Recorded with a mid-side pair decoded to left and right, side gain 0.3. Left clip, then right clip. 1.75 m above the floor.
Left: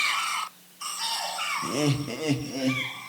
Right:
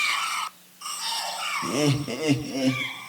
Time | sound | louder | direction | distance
1.6 | laughter | right 2 dB | 20° right | 2.0 m